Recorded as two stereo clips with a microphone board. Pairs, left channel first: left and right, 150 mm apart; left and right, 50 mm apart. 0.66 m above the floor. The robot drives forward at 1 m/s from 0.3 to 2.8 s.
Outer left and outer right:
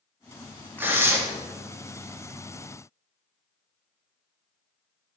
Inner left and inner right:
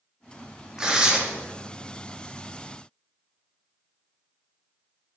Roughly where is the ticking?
I don't hear ticking.